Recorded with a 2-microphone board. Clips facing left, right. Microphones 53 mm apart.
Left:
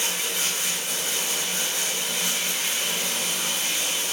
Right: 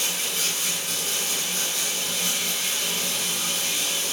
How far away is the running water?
About 1.2 m.